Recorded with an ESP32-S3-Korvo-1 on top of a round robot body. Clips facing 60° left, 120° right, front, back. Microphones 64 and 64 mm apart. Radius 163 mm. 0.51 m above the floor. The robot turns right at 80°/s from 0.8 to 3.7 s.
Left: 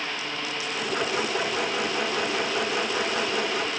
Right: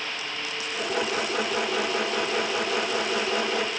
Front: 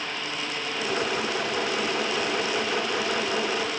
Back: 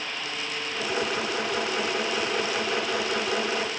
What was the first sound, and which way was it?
Only background noise.